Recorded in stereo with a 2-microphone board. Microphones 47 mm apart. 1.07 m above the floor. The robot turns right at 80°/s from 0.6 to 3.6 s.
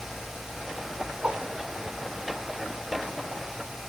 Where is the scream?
No scream in this recording.